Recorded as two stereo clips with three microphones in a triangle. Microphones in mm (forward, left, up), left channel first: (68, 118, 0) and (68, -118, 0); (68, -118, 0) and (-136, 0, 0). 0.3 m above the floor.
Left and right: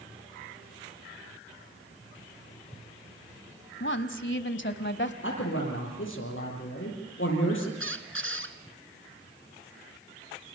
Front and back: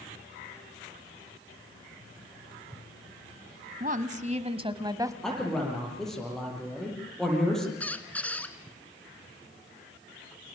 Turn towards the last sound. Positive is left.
turn(degrees=-115)